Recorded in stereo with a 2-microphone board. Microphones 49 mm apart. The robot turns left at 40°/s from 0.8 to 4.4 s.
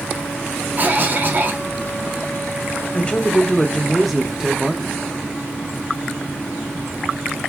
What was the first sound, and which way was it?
A cough, 70° right.